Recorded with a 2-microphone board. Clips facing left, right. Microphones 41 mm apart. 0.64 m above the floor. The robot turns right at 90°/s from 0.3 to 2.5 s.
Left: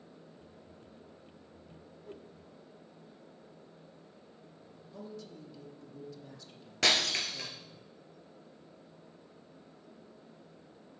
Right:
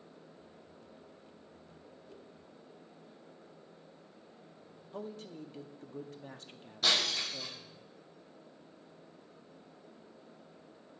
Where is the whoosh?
45° left (ahead or behind), 0.9 m; by 2.3 s 55° left (ahead or behind), 0.9 m.